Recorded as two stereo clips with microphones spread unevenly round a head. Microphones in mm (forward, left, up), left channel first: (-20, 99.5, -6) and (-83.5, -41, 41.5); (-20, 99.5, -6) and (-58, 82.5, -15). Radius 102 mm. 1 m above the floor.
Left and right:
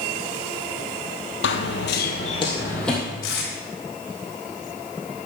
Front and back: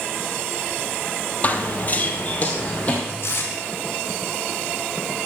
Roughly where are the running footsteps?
Ahead left.